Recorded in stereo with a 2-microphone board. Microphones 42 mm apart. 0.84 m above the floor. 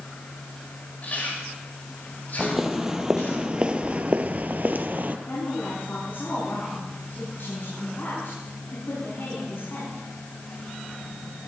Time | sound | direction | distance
1.0 | chewing | 45° left (ahead or behind) | 5 m
2.4 | footsteps | 5° right (ahead or behind) | 1.5 m
5.3 | a woman speaking | 60° left (ahead or behind) | 7 m